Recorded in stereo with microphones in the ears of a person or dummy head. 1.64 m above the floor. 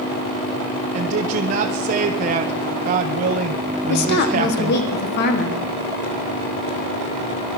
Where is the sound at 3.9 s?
55° left (ahead or behind), 1.4 m.